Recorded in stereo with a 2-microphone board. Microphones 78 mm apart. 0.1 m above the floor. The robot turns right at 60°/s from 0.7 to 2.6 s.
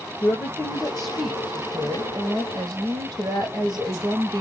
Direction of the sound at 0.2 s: 145° left.